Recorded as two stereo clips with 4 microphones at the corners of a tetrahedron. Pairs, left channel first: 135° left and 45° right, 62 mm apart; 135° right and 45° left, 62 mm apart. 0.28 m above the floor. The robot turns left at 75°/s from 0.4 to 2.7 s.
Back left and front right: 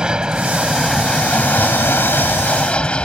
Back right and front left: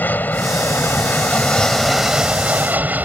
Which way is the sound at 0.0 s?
110° right.